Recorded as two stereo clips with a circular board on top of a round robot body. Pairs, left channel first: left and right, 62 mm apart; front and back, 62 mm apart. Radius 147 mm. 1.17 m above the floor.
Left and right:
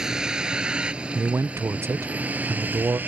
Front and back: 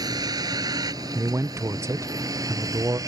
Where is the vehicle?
170° right; by 3.1 s 150° right.